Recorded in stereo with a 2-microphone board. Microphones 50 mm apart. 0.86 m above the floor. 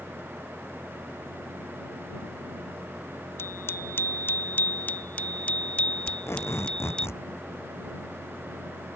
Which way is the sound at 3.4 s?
60° left (ahead or behind).